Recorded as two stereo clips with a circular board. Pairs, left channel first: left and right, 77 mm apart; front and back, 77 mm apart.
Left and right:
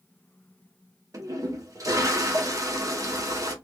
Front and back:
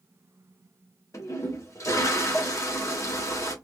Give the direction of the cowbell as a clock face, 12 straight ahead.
No cowbell in this recording.